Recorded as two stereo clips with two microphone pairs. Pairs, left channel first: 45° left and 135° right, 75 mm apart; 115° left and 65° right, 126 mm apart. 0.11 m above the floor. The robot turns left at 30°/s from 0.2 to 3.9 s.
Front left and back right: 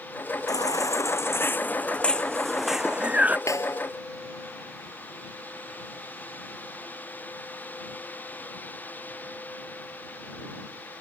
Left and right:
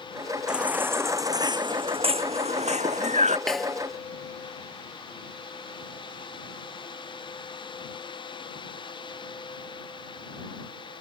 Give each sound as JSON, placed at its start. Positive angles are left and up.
{"t": 0.5, "sound": "a baby crying", "azimuth_deg": 20}
{"t": 3.5, "sound": "a snare drum", "azimuth_deg": 30}